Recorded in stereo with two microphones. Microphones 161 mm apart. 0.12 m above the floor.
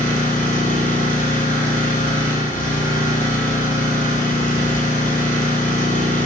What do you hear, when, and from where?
0.0 s an engine running: 55° left (ahead or behind), 0.9 m